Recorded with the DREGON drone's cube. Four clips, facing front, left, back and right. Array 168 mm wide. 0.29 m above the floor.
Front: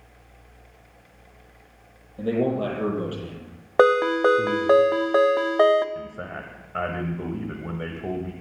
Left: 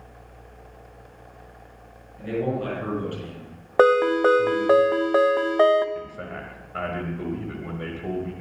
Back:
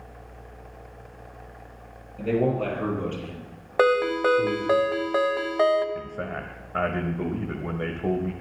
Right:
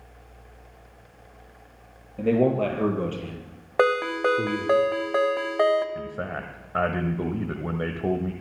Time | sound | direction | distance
2.2 | a man speaking | 70° right | 6 m
3.8 | a ringtone | 35° left | 0.8 m
6.0 | a man speaking | 105° right | 1.2 m